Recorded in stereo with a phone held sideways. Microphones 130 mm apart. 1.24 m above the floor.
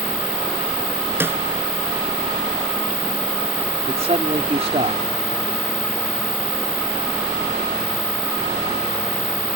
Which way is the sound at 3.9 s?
55° right (ahead or behind).